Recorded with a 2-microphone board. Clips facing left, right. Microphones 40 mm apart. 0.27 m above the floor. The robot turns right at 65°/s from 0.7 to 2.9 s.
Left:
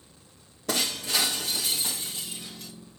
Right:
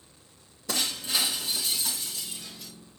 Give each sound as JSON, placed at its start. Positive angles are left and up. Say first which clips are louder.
{"t": 0.7, "sound": "breaking glass", "louder": "left 2 dB", "azimuth_deg": 65, "distance_m": 4.5}